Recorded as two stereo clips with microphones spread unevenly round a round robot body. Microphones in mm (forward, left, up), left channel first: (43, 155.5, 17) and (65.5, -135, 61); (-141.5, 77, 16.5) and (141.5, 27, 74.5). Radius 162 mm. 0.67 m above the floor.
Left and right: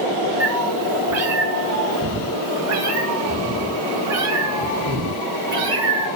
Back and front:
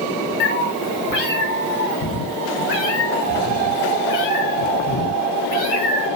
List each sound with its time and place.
0.4 s a cat meowing: 135° right, 2.5 m; by 6.1 s 125° right, 5.5 m